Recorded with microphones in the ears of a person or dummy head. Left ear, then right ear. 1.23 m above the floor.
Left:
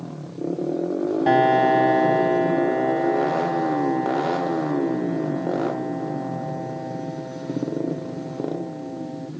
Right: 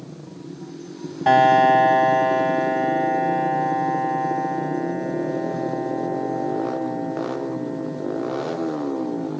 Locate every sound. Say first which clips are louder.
1.3 s a piano: right 4 dB; 30° right (ahead or behind)